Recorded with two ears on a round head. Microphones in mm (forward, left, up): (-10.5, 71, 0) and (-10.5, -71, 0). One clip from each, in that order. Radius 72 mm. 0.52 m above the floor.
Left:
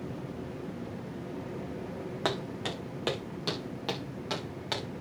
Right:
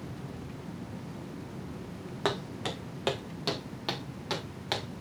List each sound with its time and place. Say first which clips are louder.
2.2 s footsteps: right 1 dB; 5° left (ahead or behind), 2 m; by 4.9 s 15° right (ahead or behind), 3.5 m